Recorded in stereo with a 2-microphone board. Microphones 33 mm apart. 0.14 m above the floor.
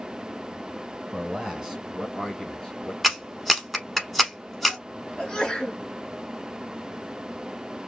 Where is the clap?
5° left (ahead or behind), 0.9 m.